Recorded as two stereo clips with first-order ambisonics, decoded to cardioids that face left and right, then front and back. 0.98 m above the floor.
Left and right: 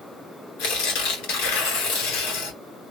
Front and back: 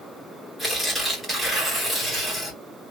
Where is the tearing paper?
90° left, 1.7 m.